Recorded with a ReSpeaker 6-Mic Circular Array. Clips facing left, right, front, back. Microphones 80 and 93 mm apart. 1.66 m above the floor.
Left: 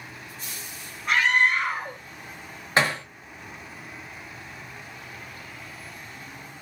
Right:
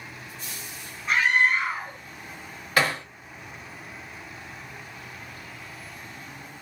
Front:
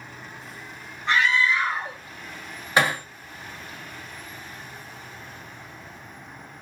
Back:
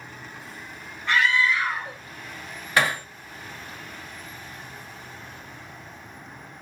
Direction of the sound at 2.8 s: 50° left.